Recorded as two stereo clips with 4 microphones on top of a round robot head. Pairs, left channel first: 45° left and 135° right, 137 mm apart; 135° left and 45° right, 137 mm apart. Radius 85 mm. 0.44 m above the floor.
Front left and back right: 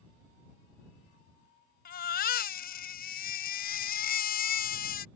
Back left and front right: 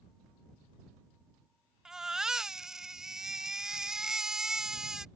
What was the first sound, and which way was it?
A baby crying, 40° left.